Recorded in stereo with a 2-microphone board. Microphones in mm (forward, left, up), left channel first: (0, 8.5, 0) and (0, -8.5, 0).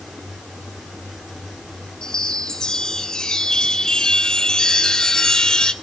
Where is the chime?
45° left (ahead or behind), 1.9 m.